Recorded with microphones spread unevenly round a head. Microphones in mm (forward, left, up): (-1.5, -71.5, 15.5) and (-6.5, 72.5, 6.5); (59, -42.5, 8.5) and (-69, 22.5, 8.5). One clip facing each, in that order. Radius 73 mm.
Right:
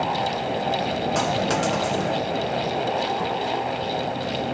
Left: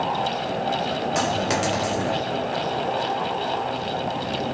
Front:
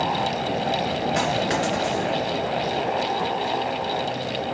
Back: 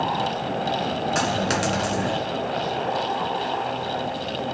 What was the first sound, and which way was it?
A dropped coin, 175° left.